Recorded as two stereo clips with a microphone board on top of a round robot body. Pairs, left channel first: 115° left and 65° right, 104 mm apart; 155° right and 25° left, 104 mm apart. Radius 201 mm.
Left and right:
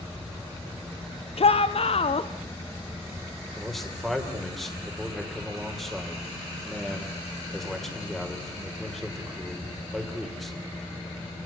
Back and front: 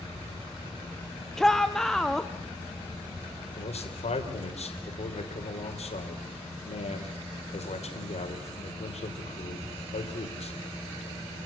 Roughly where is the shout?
Behind left.